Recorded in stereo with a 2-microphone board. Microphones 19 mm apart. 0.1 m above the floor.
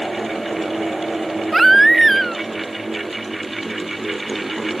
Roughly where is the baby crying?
Centre.